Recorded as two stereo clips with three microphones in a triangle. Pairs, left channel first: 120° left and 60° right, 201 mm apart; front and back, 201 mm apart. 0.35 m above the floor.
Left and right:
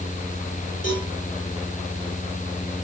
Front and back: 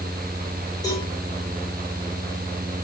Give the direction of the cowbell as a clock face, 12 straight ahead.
10 o'clock.